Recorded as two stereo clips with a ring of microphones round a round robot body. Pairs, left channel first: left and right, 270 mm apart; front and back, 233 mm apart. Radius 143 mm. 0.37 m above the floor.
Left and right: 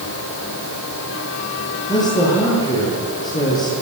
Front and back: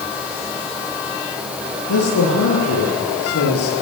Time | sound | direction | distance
1.9 | a man speaking | 15° left | 8 m